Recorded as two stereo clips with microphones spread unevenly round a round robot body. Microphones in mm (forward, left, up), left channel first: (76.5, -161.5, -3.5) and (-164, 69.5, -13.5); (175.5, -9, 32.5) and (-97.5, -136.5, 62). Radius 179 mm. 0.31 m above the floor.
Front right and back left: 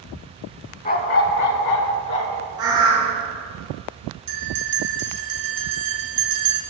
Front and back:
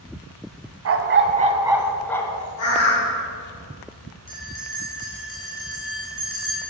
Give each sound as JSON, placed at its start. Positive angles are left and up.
{"t": 0.8, "sound": "a dog barking", "azimuth_deg": -110, "distance_m": 1.0}
{"t": 2.6, "sound": "a bird", "azimuth_deg": 60, "distance_m": 3.0}
{"t": 4.3, "sound": "a bell", "azimuth_deg": 95, "distance_m": 2.5}